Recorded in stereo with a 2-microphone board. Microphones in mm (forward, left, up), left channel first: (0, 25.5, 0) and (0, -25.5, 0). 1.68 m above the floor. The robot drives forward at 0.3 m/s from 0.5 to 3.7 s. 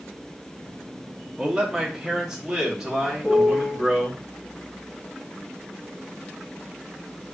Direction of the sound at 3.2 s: 25° left (ahead or behind).